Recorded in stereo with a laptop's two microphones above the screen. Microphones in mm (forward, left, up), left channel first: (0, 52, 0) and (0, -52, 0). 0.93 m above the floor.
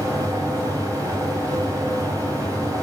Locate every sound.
0.0 s a fan: 35° right (ahead or behind), 8 m